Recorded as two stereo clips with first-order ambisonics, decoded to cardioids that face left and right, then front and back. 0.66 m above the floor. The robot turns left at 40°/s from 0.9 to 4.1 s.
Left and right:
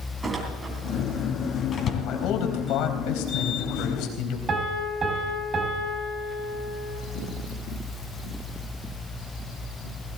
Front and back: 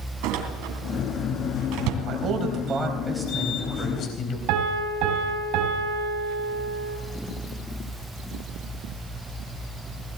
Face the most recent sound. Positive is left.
turn(degrees=-155)